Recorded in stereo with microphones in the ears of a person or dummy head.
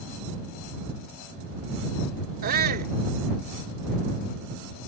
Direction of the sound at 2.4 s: 50° right (ahead or behind).